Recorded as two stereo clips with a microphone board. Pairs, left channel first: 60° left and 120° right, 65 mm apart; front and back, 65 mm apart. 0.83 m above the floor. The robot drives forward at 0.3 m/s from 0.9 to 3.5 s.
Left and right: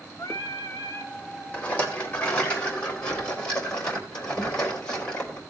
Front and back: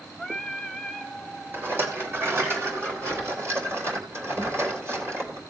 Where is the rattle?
130° left, 3 m; by 5.4 s 135° left, 3.5 m.